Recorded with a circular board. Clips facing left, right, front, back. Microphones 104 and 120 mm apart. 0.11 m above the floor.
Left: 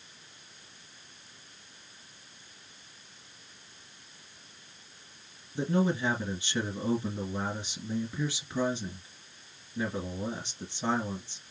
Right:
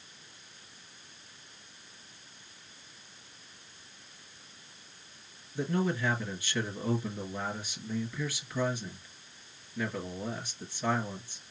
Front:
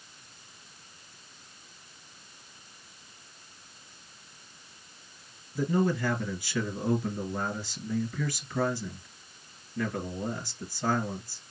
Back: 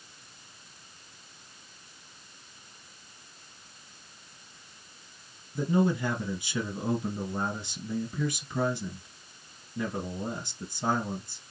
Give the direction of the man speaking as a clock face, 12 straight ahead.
8 o'clock.